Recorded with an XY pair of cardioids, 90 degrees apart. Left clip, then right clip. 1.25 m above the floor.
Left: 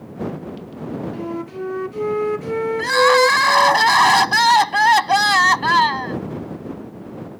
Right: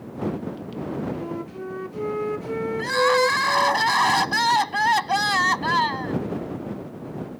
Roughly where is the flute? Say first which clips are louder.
Left 4 dB; ahead left.